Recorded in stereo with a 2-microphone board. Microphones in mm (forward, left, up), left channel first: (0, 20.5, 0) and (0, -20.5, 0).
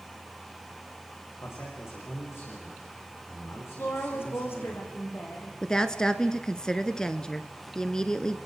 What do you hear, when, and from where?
1.4 s a man speaking: 75° left (ahead or behind), 8.5 m
3.8 s a woman speaking: 65° left (ahead or behind), 5.5 m
5.6 s a woman speaking: 15° left (ahead or behind), 1.1 m